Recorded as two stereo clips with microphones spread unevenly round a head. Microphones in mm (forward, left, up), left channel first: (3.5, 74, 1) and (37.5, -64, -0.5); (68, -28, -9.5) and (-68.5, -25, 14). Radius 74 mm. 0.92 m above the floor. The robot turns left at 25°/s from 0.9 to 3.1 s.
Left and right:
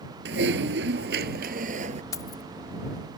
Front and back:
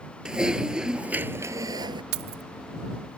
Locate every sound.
0.2 s typing on a keyboard: 100° right; by 2.0 s 125° right
2.1 s keys jangling: 175° left; by 2.4 s 165° left